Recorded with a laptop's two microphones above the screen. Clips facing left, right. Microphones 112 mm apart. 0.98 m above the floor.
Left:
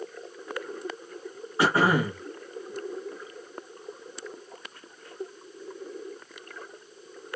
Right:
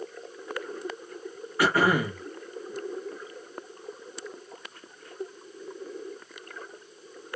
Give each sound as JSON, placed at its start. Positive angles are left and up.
{"t": 1.6, "sound": "throat clearing", "side_deg": 25, "distance_m": 0.6}